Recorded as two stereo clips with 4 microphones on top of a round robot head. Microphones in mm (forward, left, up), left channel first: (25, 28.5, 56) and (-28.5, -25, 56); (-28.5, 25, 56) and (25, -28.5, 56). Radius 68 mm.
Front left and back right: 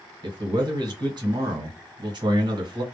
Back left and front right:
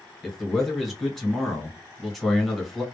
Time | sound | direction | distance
0.2 | a man speaking | 135° right | 1.3 m